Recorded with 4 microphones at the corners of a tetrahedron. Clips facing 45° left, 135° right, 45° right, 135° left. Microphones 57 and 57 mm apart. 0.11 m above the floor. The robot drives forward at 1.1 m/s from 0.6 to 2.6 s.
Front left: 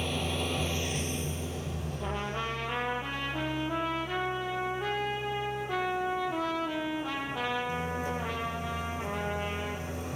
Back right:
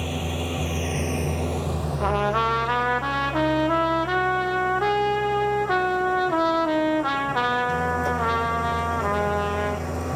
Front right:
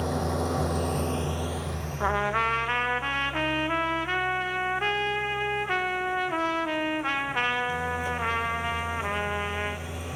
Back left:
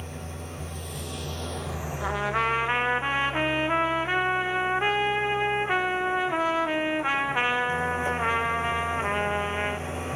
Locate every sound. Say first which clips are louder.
0.0 s an engine running: back right 3 dB, front right 11 dB; 55° right, 0.9 m; by 10.2 s 155° right, 1.8 m
2.0 s a trumpet: back right 13 dB, front right 1 dB; 110° right, 0.8 m; by 9.9 s 140° right, 1.2 m